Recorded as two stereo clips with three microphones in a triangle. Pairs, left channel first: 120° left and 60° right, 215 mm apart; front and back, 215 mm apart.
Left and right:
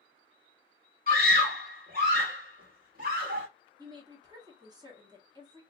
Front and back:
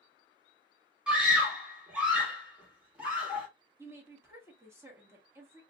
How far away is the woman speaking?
About 1.2 m.